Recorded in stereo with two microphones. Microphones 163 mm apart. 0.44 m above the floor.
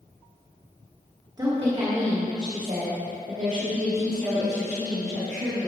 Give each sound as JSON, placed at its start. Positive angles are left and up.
{"t": 1.4, "sound": "a woman speaking", "side_deg": -25, "distance_m": 1.2}